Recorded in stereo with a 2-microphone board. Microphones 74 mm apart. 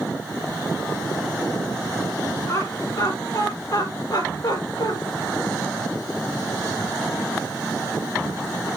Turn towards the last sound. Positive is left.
turn(degrees=70)  # may be behind; listen again after turning